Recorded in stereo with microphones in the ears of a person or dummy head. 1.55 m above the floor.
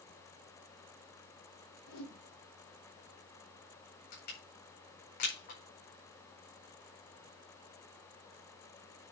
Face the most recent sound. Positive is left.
turn(degrees=55)  # may be behind; listen again after turning